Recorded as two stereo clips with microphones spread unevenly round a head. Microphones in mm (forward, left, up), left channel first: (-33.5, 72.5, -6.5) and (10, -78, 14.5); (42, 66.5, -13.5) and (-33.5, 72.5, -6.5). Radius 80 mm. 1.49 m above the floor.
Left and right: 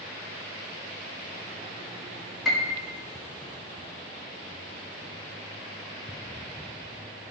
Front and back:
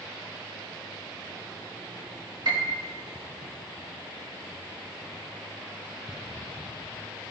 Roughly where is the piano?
Behind.